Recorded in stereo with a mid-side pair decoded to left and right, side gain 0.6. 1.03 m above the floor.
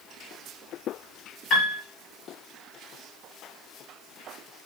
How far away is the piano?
About 1.2 m.